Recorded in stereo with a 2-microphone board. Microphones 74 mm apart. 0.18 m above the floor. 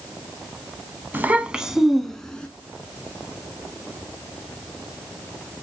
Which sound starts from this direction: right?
A child speaking, at 1.1 s.